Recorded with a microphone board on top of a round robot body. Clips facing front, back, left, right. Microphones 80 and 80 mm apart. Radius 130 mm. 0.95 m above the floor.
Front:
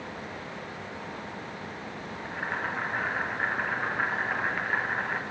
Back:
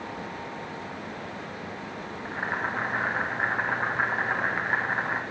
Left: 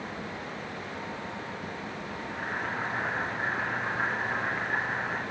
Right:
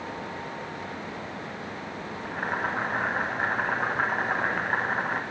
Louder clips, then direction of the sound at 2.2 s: Back 2 dB, right 5 dB; 115° right.